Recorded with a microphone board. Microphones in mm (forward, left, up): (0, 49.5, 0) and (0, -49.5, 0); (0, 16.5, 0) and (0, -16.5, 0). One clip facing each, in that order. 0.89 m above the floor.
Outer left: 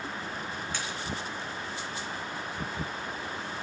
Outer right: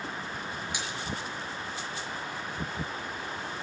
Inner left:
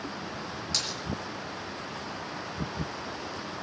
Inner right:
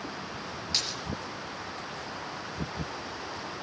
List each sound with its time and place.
0.7 s a splash: 15° right (ahead or behind), 5 m